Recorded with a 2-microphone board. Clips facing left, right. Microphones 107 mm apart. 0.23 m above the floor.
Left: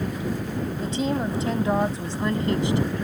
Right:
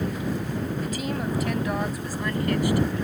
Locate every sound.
0.8 s a woman speaking: 30° left (ahead or behind); by 2.9 s 25° left (ahead or behind)